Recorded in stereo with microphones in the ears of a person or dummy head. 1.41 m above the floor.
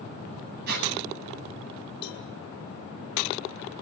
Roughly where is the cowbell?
Left.